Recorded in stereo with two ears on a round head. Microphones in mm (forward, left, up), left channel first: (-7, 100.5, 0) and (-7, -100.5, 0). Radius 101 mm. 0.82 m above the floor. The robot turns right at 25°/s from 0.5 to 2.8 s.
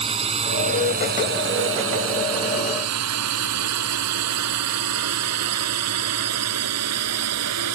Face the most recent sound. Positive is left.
turn(degrees=-75)  # may be behind; listen again after turning